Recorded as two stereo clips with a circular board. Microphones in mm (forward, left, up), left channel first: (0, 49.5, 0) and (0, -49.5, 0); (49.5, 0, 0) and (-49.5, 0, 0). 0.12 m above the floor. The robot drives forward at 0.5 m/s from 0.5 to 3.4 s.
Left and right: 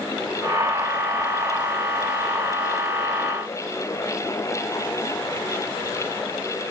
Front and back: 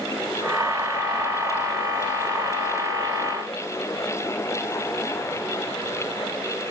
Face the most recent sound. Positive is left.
No sound to turn to.